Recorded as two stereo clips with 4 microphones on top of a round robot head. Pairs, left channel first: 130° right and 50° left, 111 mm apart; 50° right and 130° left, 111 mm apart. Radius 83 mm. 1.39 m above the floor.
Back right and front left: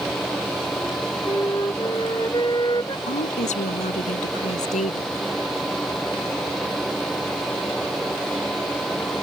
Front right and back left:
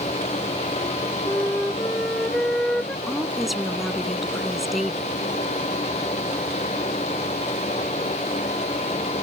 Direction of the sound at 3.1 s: 145° right.